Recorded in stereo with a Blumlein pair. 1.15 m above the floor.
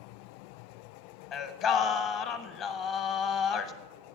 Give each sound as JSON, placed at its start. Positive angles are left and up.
{"t": 1.3, "sound": "singing", "azimuth_deg": 35, "distance_m": 0.8}